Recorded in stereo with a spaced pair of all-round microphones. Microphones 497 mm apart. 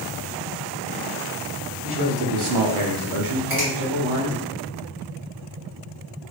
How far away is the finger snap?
About 1.6 m.